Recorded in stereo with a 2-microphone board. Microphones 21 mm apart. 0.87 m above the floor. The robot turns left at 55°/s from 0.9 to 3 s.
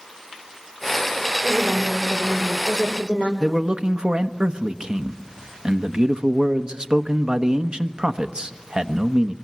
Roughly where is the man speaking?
Right.